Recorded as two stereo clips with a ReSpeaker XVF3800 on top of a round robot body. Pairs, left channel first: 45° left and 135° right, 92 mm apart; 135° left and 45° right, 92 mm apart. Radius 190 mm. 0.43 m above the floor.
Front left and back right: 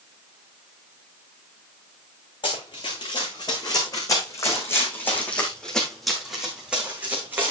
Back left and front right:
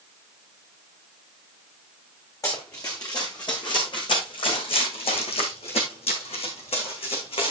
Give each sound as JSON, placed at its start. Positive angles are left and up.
{"t": 2.4, "sound": "running footsteps", "azimuth_deg": 80, "distance_m": 3.5}